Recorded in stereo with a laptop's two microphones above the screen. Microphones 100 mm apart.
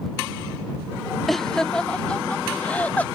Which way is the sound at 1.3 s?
Centre (ahead or behind).